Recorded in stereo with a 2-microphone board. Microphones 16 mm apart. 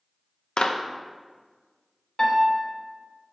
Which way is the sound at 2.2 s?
35° left (ahead or behind).